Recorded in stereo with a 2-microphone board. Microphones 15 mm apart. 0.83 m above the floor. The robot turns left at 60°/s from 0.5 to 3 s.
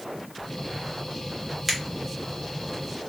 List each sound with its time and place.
1.7 s a finger snap: centre (ahead or behind), 1.5 m; by 1.8 s 5° left (ahead or behind), 1.5 m